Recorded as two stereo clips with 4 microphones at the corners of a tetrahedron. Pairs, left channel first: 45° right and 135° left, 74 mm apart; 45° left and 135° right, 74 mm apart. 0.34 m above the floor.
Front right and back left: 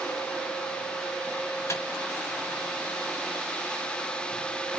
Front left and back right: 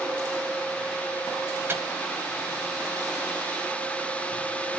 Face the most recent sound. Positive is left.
turn(degrees=-85)